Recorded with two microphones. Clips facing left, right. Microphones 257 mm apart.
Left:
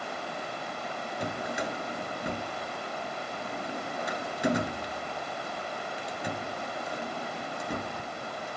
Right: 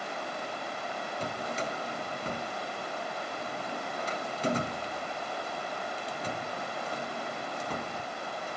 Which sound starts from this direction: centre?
A drawer, at 1.2 s.